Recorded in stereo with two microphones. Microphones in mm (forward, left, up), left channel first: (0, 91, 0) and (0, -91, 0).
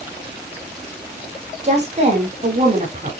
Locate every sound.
1.6 s a woman speaking: 40° right (ahead or behind), 6.5 m